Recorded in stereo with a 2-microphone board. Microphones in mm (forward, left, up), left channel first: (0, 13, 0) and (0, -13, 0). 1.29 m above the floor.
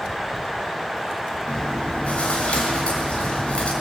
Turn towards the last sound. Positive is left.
turn(degrees=55)  # may be behind; listen again after turning